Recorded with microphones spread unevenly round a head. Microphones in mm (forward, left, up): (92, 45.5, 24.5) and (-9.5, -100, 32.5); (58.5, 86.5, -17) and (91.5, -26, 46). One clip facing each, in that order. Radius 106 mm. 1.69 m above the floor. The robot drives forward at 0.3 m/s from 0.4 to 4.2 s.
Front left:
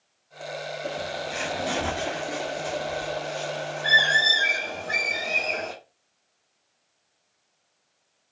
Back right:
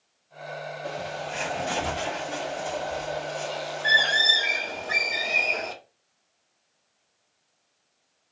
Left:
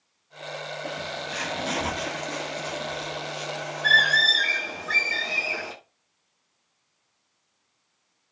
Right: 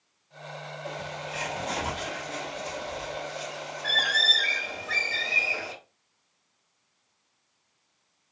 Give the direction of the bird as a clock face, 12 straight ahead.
8 o'clock.